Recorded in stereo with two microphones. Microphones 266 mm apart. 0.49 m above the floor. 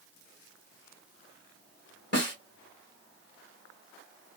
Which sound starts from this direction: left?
A snare drum, at 2.1 s.